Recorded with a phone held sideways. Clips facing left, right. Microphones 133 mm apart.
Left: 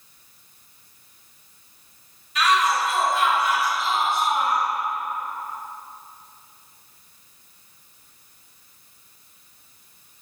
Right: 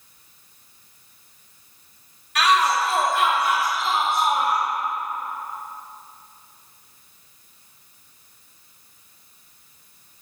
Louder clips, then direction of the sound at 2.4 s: Right 1 dB; 70° right (ahead or behind).